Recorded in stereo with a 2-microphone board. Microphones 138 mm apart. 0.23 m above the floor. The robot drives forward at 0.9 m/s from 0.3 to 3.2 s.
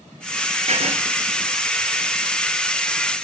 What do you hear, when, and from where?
0.7 s writing: 50° right (ahead or behind), 3 m